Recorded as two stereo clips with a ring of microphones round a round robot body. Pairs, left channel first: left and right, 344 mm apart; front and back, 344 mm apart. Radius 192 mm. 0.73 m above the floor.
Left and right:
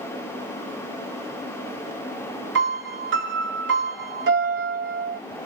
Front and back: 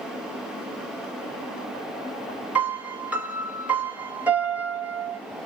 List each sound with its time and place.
2.5 s a piano: 95° right, 1.0 m